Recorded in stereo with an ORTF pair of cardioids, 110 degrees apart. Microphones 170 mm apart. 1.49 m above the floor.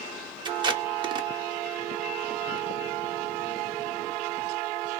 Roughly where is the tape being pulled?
Ahead right.